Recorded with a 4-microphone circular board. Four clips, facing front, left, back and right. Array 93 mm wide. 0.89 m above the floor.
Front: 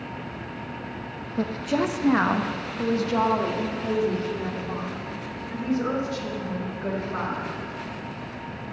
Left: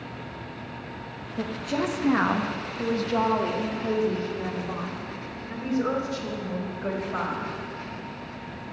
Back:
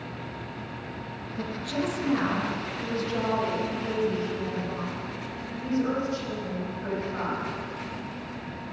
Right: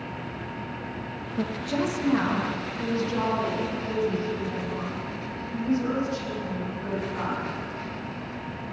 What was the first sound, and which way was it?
A woman speaking, 10° right.